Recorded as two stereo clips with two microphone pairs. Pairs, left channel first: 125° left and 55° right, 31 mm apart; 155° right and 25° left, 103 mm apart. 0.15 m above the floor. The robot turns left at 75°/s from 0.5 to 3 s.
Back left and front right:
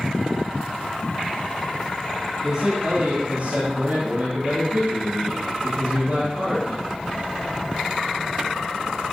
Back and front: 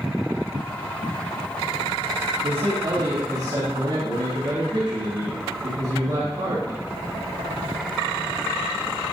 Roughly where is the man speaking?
Ahead left.